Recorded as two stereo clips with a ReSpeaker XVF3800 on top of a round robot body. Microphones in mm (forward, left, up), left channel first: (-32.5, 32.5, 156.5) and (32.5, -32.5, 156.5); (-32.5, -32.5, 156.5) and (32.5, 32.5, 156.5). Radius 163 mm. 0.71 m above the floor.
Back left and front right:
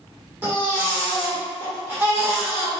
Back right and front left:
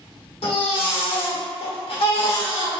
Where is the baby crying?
115° right, 1.3 m.